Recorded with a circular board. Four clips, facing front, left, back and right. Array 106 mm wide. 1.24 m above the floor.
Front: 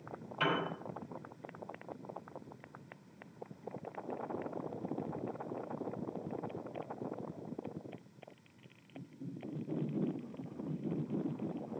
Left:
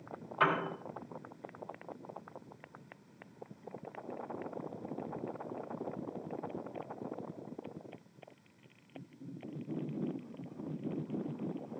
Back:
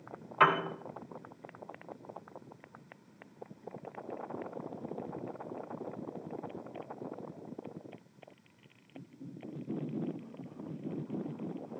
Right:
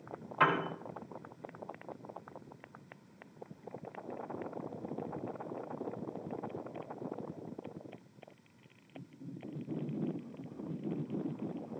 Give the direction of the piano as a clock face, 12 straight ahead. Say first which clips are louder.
Right 1 dB, back 8 dB; 5 o'clock.